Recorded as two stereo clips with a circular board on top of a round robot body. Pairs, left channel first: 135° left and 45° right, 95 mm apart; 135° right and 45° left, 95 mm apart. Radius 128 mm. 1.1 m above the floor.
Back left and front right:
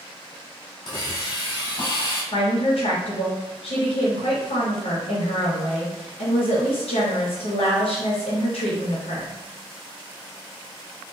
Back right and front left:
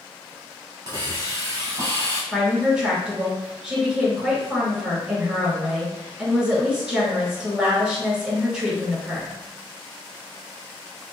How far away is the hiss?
About 1.2 m.